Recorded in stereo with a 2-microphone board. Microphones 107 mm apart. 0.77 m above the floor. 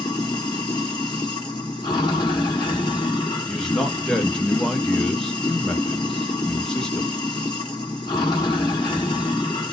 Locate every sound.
0.0 s running water: 40° left (ahead or behind), 2 m
3.5 s a man speaking: 5° left (ahead or behind), 1.0 m